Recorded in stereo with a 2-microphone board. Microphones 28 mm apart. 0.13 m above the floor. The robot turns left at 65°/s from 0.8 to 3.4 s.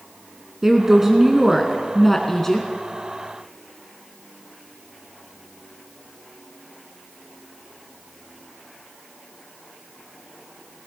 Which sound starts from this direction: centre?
A woman speaking, at 0.6 s.